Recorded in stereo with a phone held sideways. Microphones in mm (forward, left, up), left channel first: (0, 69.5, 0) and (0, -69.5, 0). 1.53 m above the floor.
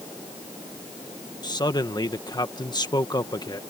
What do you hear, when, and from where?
1.4 s a man speaking: 30° left (ahead or behind)